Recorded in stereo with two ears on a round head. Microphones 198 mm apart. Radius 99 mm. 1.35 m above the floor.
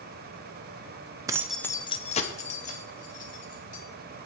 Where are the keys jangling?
15° right (ahead or behind), 0.5 m; by 3.8 s 35° left (ahead or behind), 2.5 m.